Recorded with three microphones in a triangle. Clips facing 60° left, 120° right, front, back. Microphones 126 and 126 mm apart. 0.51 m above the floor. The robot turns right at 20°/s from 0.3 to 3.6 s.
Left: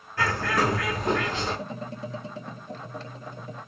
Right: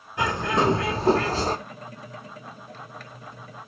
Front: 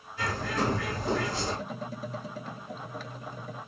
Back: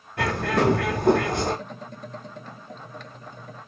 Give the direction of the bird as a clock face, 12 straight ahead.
6 o'clock.